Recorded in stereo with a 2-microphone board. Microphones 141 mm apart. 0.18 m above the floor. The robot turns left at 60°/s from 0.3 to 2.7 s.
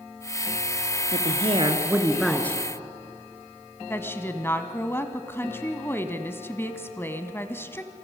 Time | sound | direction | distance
1.1 | a woman speaking | 110° right | 2 m
3.9 | a woman speaking | 15° left (ahead or behind) | 1.1 m